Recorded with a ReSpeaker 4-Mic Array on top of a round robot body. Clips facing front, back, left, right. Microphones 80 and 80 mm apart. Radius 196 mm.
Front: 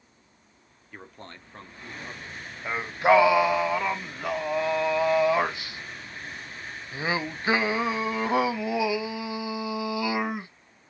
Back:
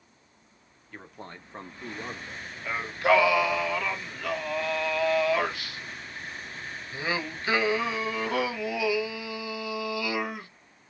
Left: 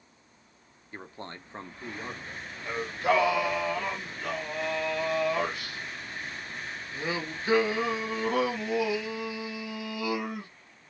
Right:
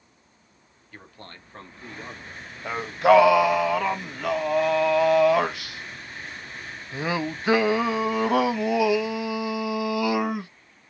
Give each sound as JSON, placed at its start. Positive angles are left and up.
{"t": 0.9, "sound": "a man speaking", "azimuth_deg": 80, "distance_m": 1.4}
{"t": 2.6, "sound": "singing", "azimuth_deg": -70, "distance_m": 0.6}